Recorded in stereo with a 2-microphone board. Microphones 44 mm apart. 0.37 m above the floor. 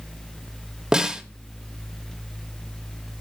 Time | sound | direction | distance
0.9 | a snare drum | 15° right (ahead or behind) | 1.1 m